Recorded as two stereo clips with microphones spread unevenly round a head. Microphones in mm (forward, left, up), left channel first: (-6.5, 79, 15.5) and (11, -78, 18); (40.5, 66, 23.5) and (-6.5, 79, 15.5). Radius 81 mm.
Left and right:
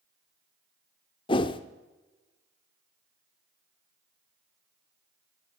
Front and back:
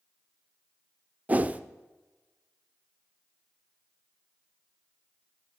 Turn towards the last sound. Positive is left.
turn(degrees=125)